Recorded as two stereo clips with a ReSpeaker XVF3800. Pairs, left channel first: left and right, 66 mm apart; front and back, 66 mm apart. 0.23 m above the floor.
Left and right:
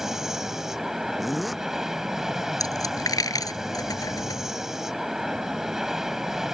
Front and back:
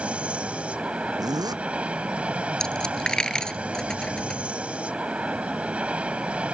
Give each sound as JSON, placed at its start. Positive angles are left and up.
{"t": 0.0, "sound": "an aircraft", "azimuth_deg": -160}
{"t": 1.2, "sound": "a zipper", "azimuth_deg": -175}
{"t": 2.6, "sound": "a dropped coin", "azimuth_deg": 80}